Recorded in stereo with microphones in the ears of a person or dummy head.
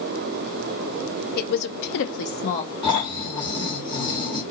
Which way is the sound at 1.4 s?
50° left (ahead or behind).